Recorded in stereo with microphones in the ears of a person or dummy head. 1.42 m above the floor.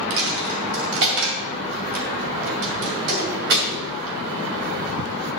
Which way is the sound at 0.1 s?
55° right (ahead or behind).